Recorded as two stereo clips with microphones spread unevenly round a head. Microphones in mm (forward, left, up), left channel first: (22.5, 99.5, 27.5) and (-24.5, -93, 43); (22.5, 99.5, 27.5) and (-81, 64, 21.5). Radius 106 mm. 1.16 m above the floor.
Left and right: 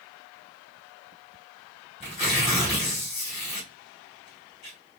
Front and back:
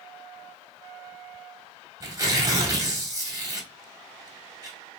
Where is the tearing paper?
140° left, 1.7 m.